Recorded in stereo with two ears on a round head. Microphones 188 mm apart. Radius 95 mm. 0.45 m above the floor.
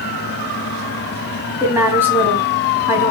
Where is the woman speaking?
10° right (ahead or behind), 2.5 m.